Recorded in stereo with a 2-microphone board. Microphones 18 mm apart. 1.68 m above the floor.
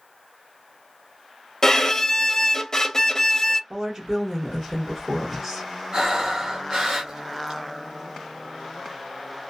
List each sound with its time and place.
1.6 s a violin: 30° left (ahead or behind), 0.5 m
3.7 s a woman speaking: 40° right (ahead or behind), 1.1 m
5.9 s breathing: 45° right (ahead or behind), 1.2 m